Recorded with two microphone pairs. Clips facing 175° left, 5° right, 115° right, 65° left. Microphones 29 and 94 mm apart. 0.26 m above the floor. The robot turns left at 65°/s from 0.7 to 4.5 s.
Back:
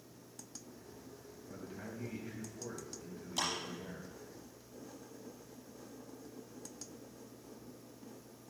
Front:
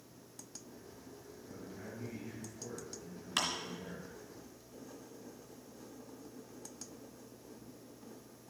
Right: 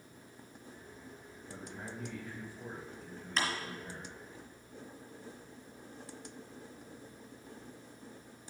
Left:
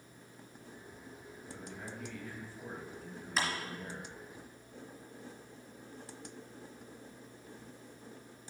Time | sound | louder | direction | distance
1.5 | a man speaking | back 1 dB, right 1 dB | 110° right | 1.9 m
3.4 | a clap | front 2 dB, even | 20° right | 3 m